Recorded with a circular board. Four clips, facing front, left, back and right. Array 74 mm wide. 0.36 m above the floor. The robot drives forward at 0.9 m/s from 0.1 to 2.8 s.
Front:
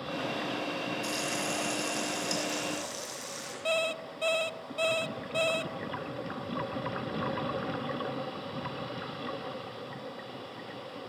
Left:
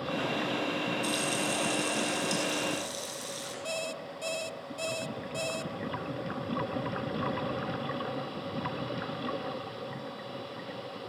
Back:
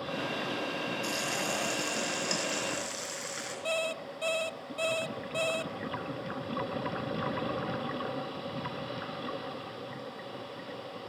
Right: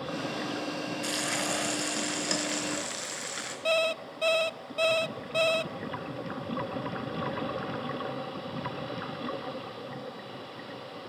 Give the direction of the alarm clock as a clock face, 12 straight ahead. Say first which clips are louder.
Right 10 dB, front 3 dB; 2 o'clock.